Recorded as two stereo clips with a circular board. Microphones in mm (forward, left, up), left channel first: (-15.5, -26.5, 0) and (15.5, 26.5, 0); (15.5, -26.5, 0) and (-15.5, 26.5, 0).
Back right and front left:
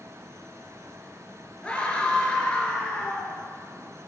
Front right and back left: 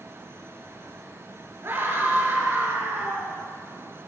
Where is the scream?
165° left, 5 m.